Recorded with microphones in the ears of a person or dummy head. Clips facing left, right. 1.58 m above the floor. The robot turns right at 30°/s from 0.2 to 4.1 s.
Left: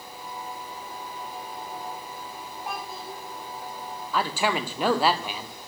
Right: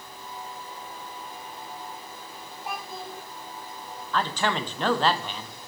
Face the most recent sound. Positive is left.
turn(degrees=10)  # may be behind; listen again after turning